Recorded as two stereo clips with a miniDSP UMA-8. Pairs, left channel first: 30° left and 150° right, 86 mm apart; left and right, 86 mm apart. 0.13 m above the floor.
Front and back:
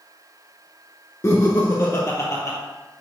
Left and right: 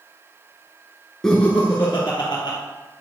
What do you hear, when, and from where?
1.2 s laughter: 10° left, 1.4 m; by 2.6 s 70° left, 1.9 m